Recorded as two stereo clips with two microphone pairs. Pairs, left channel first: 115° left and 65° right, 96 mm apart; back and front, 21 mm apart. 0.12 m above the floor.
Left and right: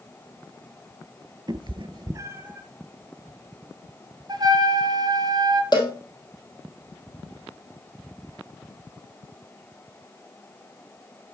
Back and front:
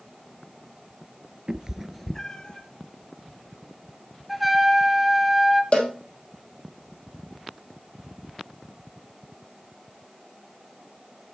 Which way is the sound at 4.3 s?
90° right.